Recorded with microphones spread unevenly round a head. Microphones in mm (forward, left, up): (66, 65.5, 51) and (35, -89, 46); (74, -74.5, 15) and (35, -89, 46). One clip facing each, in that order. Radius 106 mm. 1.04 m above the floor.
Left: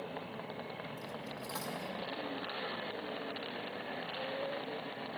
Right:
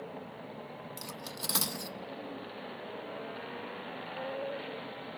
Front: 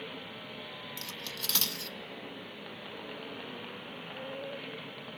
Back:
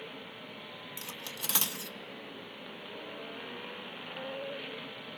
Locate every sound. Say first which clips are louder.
1.0 s cutlery clinking: even, even; 130° right, 0.5 m